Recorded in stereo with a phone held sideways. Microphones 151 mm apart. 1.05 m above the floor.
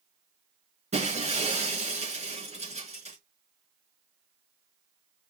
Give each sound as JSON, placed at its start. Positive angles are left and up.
{"t": 0.9, "sound": "breaking glass", "side_deg": -45, "distance_m": 4.5}